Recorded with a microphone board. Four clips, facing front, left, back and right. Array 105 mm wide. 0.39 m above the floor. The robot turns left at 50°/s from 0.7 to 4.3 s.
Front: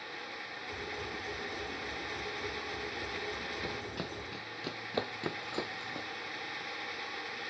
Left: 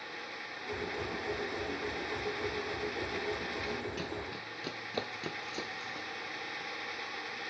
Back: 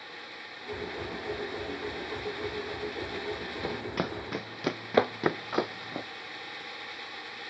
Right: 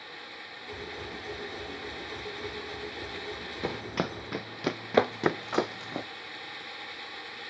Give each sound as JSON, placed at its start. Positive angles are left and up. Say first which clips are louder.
{"t": 3.6, "sound": "running footsteps", "louder": "right 5 dB, back 7 dB", "azimuth_deg": -115}